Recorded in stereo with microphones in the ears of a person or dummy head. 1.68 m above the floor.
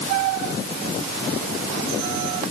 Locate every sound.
Only background noise.